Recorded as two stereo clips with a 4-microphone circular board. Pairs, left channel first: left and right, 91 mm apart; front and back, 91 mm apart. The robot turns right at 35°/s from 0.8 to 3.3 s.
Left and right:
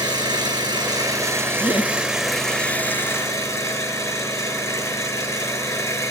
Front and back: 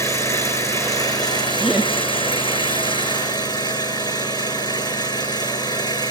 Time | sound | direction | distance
0.0 | an engine running | 50° right | 7 m
1.6 | laughter | 95° left | 4 m